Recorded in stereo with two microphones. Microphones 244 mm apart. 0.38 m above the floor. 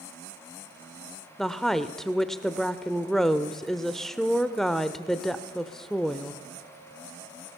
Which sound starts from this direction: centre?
A woman speaking, at 1.4 s.